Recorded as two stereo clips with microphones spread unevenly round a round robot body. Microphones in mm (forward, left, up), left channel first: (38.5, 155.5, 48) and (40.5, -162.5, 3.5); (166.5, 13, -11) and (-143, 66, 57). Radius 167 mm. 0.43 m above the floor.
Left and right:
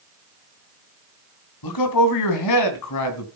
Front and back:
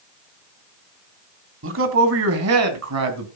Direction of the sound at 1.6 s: 120° left.